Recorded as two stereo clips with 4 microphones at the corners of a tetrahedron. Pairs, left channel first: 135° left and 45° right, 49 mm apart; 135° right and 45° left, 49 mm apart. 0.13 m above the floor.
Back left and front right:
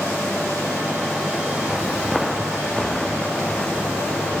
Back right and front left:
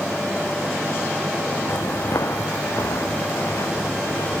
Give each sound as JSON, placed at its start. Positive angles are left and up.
{"t": 1.7, "sound": "footsteps", "azimuth_deg": -125, "distance_m": 0.8}